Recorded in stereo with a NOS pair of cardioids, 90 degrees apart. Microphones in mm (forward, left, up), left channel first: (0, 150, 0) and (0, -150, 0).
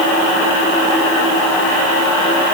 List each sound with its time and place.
Only background noise.